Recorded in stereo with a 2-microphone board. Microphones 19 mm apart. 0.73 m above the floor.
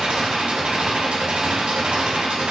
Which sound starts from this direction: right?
An engine running, at 0.0 s.